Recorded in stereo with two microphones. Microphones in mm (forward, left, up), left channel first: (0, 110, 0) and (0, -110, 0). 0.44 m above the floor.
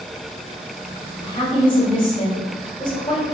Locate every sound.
1.2 s a woman speaking: 20° left (ahead or behind), 1.2 m